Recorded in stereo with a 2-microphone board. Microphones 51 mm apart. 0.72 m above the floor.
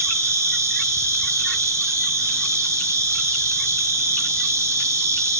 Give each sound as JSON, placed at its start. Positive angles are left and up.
{"t": 0.0, "sound": "an insect", "side_deg": -85, "distance_m": 6.5}